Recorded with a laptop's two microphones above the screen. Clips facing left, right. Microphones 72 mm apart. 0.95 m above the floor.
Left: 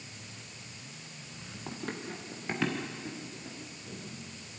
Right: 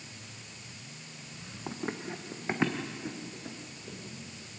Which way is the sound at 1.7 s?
15° right (ahead or behind).